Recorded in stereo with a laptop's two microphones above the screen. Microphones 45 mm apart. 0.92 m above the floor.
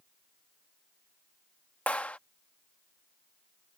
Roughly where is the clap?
Left.